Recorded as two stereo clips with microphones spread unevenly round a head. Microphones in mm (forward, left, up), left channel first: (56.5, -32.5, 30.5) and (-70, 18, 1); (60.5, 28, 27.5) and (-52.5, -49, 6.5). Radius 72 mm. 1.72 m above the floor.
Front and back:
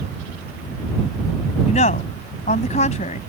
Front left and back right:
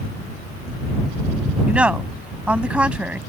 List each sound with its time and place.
1.7 s a woman speaking: 60° right